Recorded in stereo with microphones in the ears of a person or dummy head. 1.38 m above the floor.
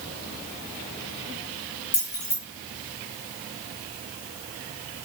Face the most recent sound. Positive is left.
turn(degrees=20)  # may be behind; listen again after turning